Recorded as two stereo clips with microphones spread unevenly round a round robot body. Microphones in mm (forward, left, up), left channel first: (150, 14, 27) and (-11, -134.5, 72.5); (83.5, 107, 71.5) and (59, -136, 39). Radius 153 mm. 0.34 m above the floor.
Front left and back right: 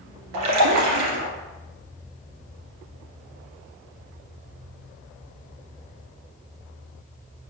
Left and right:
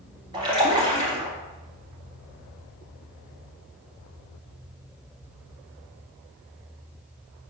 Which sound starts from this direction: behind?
A splash, at 0.3 s.